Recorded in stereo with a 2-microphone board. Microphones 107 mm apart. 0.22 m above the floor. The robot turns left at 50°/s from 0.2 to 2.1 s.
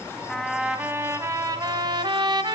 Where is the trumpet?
5° left, 1.5 m; by 2.5 s 85° right, 1.5 m.